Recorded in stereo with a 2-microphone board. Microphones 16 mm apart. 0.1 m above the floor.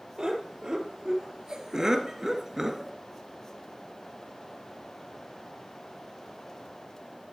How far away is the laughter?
About 3 m.